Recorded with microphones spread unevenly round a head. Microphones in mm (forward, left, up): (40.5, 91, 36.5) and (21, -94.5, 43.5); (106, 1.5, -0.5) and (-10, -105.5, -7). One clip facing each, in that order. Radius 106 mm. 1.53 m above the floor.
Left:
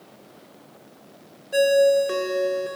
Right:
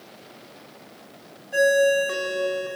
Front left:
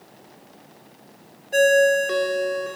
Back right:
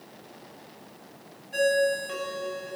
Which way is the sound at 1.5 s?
35° left.